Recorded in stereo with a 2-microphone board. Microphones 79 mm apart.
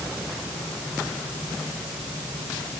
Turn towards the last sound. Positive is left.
No sound to turn to.